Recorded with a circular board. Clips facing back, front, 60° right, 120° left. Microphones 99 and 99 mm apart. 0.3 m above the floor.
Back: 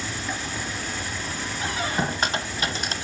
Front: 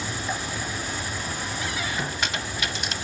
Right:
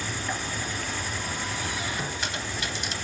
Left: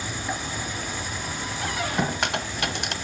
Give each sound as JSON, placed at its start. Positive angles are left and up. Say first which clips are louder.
{"t": 0.0, "sound": "an insect", "louder": "front 1 dB, left 1 dB", "azimuth_deg": 60, "distance_m": 2.0}
{"t": 1.6, "sound": "a squeak", "louder": "back 6 dB, left 5 dB", "azimuth_deg": 130, "distance_m": 0.7}